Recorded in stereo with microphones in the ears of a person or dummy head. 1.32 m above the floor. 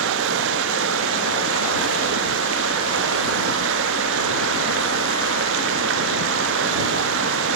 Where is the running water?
65° right (ahead or behind).